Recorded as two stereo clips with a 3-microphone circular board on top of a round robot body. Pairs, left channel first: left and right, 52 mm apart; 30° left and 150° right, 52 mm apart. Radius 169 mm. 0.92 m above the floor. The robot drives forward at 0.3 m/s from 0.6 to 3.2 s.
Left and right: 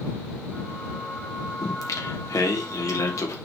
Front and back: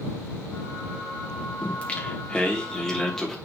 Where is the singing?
95° left, 1.4 m; by 3.4 s 115° left, 1.5 m.